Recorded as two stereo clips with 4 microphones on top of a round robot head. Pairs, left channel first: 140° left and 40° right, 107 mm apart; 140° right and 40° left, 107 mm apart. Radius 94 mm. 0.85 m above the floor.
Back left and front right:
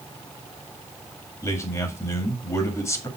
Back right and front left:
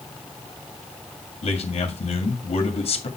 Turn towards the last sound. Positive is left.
turn(degrees=-160)